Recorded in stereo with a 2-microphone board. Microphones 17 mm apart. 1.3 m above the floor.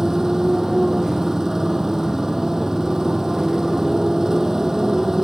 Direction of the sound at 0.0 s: 20° right (ahead or behind).